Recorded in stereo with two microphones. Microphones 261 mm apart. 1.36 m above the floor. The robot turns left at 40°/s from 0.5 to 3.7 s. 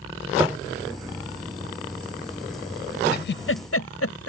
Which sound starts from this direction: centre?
Tapping, at 0.4 s.